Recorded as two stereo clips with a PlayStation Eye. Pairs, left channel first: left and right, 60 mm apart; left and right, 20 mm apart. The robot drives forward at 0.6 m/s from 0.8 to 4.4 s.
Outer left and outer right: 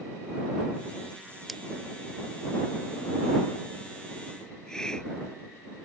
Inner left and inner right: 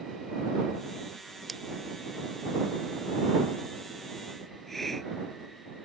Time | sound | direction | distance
1.5 | scissors | centre (ahead or behind) | ?
4.5 | a hiss | 10° left (ahead or behind) | ?